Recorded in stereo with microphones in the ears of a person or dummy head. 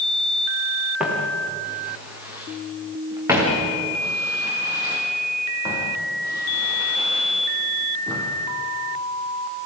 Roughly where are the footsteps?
Centre.